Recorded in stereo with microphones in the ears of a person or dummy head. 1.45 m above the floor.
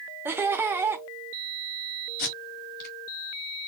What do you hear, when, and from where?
0.2 s laughter: 15° right (ahead or behind), 0.5 m
2.2 s tape being pulled: 60° left (ahead or behind), 2.0 m